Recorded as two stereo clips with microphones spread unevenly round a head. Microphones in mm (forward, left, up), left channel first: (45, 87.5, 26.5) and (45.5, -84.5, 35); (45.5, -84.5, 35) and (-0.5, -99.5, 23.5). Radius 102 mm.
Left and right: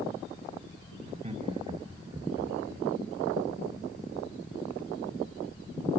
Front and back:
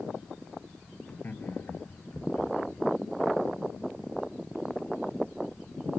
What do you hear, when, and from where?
1.1 s laughter: 45° right, 1.6 m; by 2.8 s 15° right, 3.5 m